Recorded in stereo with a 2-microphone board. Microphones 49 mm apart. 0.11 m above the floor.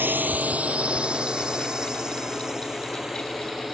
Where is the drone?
45° right (ahead or behind); by 3.8 s 5° right (ahead or behind).